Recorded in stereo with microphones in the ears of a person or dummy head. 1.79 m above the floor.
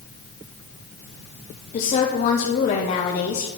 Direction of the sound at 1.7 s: 40° left (ahead or behind).